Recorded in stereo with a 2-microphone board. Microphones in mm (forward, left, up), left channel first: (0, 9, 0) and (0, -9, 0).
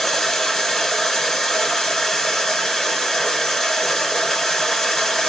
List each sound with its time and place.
0.0 s running water: 25° left (ahead or behind), 2.5 m